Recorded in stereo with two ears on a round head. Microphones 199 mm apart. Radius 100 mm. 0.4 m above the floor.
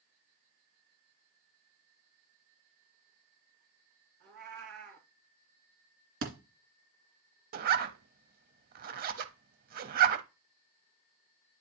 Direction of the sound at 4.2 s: 55° right (ahead or behind).